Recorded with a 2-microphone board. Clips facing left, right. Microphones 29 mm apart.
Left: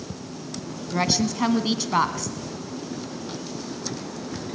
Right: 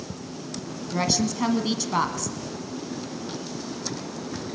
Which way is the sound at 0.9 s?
15° left (ahead or behind).